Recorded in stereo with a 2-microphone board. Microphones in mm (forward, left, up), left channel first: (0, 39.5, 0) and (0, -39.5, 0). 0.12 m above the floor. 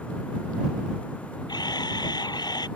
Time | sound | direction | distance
1.5 | a camera shutter | 65° left (ahead or behind) | ?